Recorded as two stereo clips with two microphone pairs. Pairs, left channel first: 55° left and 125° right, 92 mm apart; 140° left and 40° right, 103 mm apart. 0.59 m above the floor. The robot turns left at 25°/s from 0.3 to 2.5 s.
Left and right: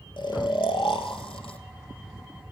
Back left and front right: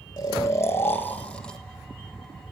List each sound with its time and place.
0.2 s snoring: 85° left, 1.8 m; by 1.6 s 55° left, 1.8 m